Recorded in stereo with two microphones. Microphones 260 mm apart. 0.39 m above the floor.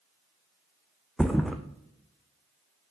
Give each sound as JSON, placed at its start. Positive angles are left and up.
{"t": 1.2, "sound": "a thud", "side_deg": 0, "distance_m": 1.2}